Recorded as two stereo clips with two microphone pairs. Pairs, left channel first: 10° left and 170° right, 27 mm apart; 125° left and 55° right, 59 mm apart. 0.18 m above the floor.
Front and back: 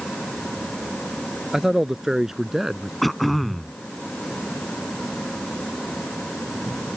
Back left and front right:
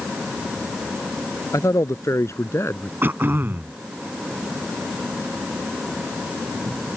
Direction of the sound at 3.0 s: 70° right.